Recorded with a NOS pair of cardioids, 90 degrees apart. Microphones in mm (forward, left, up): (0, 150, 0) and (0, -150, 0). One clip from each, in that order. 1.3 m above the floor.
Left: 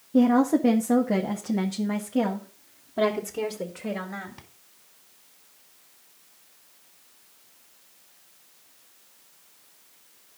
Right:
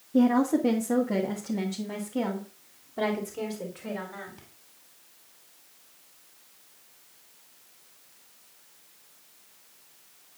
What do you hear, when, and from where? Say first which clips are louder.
0.1 s a woman speaking: left 3 dB; 20° left, 1.3 m; by 4.5 s 40° left, 3.5 m